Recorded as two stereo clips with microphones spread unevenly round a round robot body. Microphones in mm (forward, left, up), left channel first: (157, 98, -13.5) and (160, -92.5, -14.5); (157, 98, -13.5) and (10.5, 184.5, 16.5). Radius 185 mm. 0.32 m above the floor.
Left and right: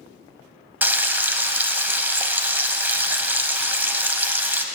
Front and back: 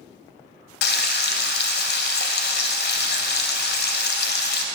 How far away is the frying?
About 0.5 m.